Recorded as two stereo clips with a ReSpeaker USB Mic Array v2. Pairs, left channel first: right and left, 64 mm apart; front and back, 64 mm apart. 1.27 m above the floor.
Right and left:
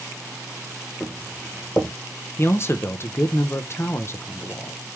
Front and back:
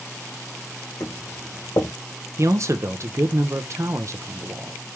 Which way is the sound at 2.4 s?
140° right.